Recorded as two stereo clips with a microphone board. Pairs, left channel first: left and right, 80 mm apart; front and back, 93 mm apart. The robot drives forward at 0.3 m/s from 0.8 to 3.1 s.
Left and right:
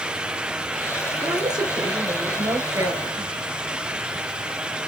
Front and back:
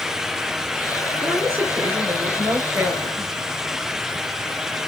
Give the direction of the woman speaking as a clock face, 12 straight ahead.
4 o'clock.